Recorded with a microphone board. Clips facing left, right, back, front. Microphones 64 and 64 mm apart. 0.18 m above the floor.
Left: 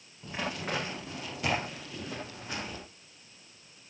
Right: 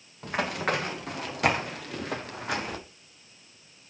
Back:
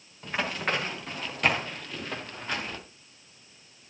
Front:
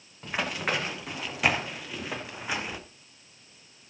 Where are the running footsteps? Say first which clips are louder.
Right 7 dB, even; 85° right, 5 m; by 2.8 s 80° right, 2 m.